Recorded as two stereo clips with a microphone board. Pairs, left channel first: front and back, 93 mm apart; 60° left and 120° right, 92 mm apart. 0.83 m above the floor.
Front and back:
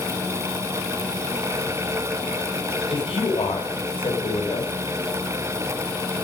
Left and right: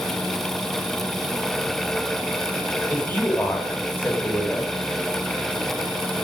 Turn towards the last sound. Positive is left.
turn(degrees=-10)